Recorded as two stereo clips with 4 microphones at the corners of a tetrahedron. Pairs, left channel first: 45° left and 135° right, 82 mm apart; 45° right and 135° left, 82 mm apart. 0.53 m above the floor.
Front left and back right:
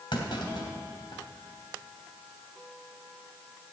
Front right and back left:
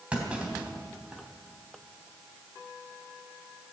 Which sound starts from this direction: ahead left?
A clunk, at 0.1 s.